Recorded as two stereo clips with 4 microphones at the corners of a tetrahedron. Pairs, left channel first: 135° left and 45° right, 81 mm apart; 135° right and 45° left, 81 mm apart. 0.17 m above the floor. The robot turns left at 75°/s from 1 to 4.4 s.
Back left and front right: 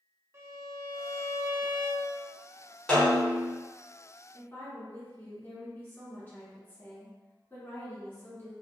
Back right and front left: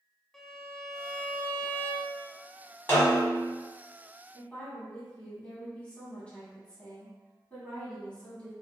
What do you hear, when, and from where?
0.3 s a violin: 55° right, 0.6 m; by 2.3 s 150° right, 0.6 m
2.9 s a snare drum: 155° right, 1.4 m; by 3.5 s 155° left, 1.4 m
4.3 s a woman speaking: 170° left, 1.3 m; by 8.5 s 165° left, 1.3 m